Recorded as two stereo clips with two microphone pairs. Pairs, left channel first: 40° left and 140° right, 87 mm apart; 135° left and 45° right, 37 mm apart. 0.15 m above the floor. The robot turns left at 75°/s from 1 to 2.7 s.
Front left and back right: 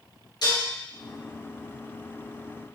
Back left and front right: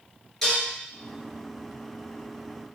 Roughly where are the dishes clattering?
Ahead left.